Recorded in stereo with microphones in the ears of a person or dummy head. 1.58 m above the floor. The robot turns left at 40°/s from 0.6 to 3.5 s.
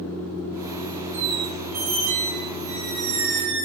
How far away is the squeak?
About 0.7 m.